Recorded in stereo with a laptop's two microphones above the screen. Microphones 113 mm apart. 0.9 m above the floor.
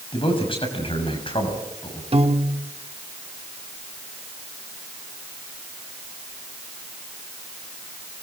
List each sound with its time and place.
0.1 s a man speaking: 50° left (ahead or behind), 6.5 m
2.1 s a piano: 60° right (ahead or behind), 1.2 m